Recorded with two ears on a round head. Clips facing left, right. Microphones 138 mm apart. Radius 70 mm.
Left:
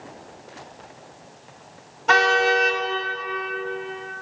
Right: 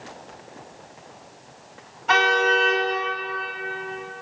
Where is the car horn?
55° left (ahead or behind), 2.5 m.